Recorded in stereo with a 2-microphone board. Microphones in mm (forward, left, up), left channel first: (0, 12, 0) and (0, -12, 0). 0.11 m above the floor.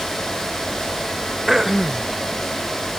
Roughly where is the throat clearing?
Centre.